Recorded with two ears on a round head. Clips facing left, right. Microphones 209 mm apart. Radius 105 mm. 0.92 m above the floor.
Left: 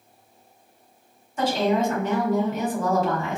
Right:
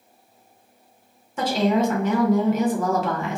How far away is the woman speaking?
About 0.9 m.